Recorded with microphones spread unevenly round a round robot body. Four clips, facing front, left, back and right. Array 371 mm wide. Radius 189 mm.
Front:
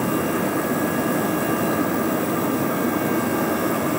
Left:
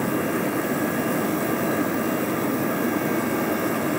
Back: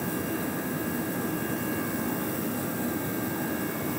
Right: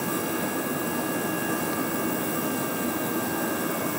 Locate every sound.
Only background noise.